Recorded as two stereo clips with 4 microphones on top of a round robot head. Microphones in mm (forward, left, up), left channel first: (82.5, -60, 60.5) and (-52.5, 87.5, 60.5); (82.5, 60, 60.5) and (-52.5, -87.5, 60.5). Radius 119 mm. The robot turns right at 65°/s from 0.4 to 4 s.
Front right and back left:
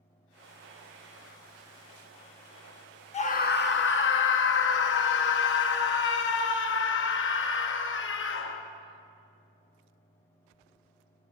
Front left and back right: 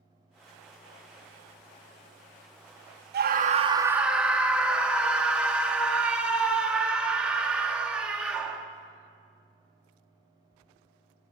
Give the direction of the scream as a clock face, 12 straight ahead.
3 o'clock.